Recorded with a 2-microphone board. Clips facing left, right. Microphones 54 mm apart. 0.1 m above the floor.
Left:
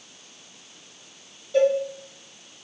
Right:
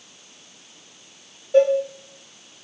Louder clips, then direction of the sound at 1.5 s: Right 3 dB; 40° right (ahead or behind).